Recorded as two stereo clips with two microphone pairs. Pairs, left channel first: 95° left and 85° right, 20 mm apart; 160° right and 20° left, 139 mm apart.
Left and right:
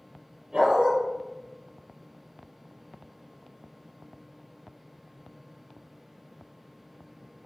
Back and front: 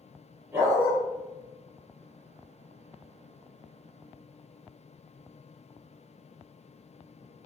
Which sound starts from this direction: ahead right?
A dog barking, at 0.5 s.